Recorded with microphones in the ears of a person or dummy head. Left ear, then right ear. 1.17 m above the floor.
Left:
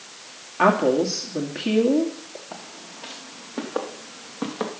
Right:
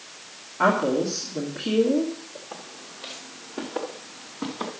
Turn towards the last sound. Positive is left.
turn(degrees=35)  # may be behind; listen again after turning